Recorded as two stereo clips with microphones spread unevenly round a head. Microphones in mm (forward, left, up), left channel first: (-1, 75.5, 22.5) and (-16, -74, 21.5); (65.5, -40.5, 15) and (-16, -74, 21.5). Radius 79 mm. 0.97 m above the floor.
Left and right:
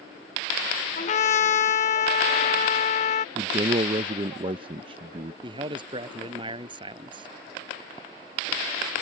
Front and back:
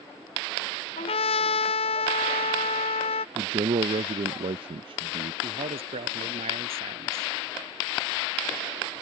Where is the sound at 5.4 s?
155° right.